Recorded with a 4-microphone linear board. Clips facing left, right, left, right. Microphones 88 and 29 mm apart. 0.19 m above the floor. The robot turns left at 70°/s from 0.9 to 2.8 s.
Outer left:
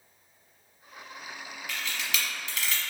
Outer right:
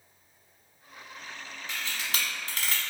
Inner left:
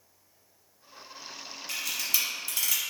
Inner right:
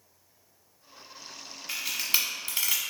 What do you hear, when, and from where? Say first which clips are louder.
1.7 s a camera shutter: outer left 1 dB, inner right 2 dB; 20° right (ahead or behind), 1.1 m; by 2.8 s 40° right (ahead or behind), 1.1 m